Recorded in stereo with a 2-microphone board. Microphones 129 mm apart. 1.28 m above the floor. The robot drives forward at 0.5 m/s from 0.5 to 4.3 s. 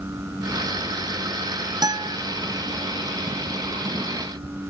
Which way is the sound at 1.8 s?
30° right (ahead or behind).